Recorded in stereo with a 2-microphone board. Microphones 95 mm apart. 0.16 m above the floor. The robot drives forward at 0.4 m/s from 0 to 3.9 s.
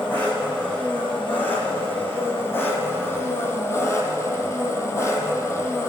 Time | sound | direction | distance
0.0 | an engine running | 15° left (ahead or behind) | 3 m